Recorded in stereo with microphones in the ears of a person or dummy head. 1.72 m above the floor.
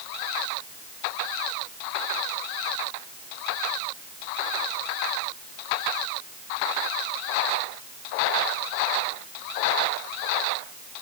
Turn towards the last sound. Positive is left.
No sound to turn to.